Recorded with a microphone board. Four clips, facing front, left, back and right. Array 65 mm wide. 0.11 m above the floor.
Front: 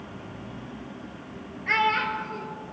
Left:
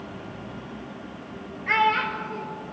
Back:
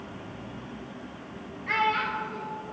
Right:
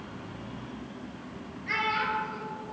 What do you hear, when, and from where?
1.7 s a child speaking: 45° left, 1.4 m